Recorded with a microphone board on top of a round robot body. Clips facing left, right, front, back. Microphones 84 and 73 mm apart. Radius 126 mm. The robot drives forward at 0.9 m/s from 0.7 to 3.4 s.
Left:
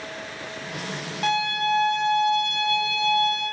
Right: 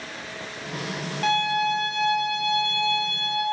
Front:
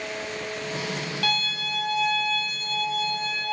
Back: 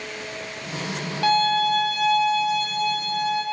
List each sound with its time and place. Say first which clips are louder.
1.2 s a violin: right 1 dB, back 13 dB; straight behind, 0.5 m